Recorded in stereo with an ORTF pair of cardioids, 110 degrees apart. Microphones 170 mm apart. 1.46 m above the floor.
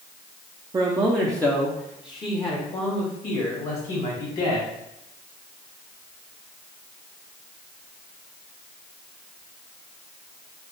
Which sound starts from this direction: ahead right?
A man speaking, at 0.7 s.